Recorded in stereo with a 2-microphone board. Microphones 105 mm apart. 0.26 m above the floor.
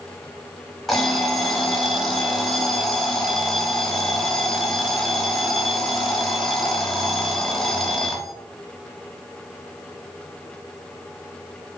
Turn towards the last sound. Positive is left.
turn(degrees=0)  # may be behind; listen again after turning